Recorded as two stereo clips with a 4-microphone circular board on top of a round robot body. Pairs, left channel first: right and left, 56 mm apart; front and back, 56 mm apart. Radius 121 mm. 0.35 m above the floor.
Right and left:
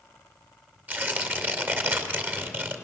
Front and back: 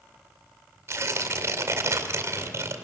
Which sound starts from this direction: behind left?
Tearing paper, at 0.9 s.